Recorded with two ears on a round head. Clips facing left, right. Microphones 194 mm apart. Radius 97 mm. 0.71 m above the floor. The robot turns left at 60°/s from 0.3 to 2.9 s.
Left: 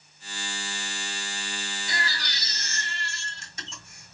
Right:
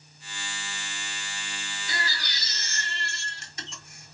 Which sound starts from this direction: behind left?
A baby crying, at 1.9 s.